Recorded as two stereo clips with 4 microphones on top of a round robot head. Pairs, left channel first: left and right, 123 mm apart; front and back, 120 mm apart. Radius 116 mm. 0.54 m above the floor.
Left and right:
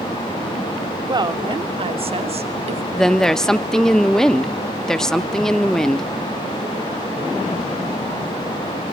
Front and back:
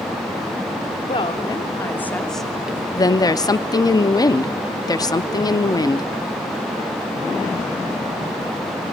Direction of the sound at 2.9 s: 10° left.